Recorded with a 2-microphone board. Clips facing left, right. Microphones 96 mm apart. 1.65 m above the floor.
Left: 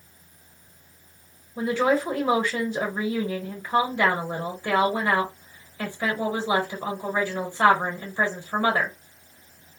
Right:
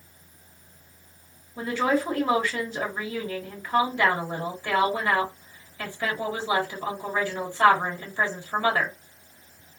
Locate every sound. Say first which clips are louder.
1.6 s a woman speaking: left 2 dB; 20° left (ahead or behind), 1.3 m